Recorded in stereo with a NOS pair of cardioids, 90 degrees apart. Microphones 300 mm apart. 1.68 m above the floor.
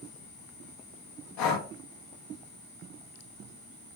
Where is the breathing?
70° left, 0.7 m.